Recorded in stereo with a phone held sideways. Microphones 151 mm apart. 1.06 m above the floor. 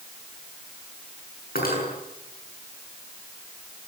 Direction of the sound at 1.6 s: 80° left.